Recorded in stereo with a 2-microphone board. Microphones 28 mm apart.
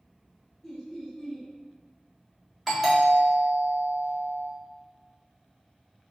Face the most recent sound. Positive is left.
turn(degrees=-5)  # may be behind; listen again after turning